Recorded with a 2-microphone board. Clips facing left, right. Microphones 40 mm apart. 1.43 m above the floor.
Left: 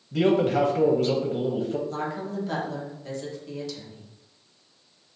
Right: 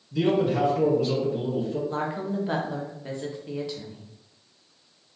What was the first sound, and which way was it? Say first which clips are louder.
A man speaking: left 2 dB; 55° left (ahead or behind).